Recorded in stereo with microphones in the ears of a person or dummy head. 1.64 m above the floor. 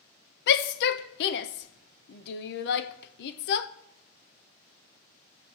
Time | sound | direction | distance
0.5 | a shout | 70° left (ahead or behind) | 0.7 m